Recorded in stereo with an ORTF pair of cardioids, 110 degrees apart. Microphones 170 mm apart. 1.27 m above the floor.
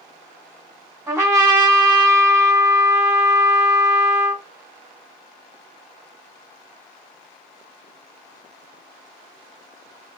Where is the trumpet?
15° right, 1.1 m.